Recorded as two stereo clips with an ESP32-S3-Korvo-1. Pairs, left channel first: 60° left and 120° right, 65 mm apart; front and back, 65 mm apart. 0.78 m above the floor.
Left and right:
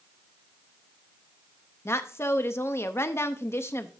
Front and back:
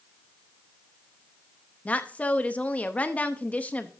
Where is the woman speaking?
55° left, 0.6 m.